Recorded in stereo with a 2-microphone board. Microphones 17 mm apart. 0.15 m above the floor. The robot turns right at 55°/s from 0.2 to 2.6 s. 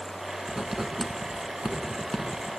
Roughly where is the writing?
Right.